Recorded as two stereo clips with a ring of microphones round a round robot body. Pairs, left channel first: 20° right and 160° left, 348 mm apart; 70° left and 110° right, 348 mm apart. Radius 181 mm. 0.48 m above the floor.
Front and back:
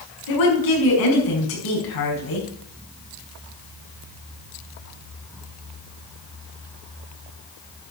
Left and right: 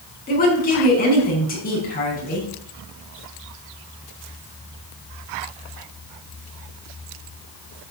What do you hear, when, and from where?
0.3 s a woman speaking: straight ahead, 5 m